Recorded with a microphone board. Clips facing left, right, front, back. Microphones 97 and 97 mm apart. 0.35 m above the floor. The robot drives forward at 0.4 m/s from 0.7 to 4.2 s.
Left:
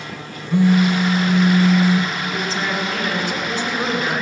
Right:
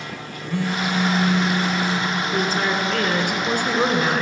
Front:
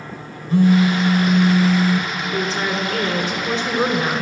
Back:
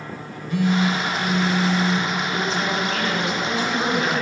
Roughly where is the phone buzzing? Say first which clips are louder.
Left 8 dB, front 6 dB; ahead left.